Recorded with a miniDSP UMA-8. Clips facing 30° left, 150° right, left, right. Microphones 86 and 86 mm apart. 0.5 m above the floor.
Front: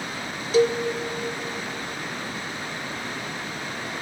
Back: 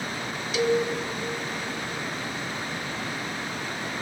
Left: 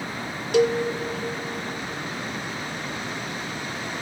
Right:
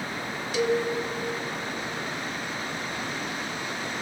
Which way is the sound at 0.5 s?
80° left.